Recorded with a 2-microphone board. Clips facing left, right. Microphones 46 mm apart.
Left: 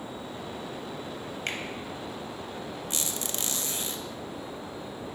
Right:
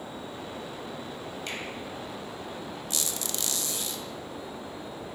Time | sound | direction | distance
1.5 | a finger snap | 50° left (ahead or behind) | 1.0 m
2.9 | a squeak | 30° left (ahead or behind) | 0.5 m